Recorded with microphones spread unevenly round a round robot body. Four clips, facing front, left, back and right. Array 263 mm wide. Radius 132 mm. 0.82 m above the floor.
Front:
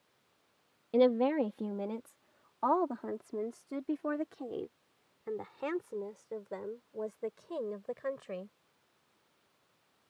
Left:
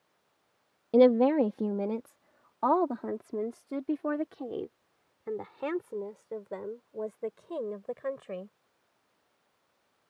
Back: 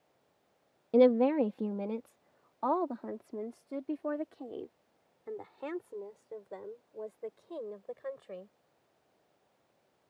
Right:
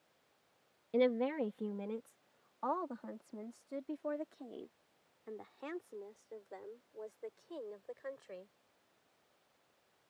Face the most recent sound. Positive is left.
turn(degrees=60)